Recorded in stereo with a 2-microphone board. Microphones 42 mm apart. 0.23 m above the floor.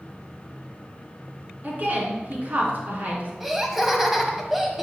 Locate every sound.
1.6 s a woman speaking: 45° right (ahead or behind), 3 m
3.4 s laughter: 5° right (ahead or behind), 1.1 m